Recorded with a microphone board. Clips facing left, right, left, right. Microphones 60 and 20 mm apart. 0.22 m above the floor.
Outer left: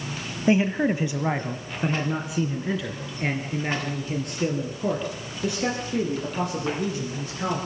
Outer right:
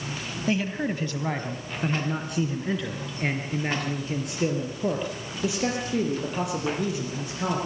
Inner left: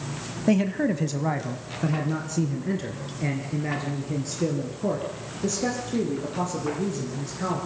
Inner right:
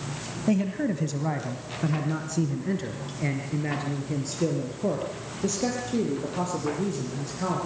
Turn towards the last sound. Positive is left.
turn(degrees=-5)  # may be behind; listen again after turning